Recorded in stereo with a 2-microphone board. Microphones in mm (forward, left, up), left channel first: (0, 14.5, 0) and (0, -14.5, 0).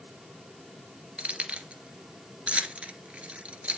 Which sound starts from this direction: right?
Keys jangling, at 1.2 s.